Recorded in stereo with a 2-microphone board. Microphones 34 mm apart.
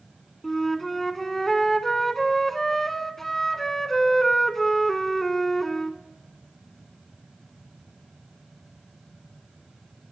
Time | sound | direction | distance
0.4 | a flute | 10° left (ahead or behind) | 0.6 m